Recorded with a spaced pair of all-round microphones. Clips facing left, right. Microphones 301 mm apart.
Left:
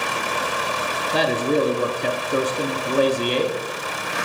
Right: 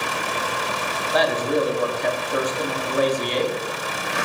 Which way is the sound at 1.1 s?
35° left (ahead or behind).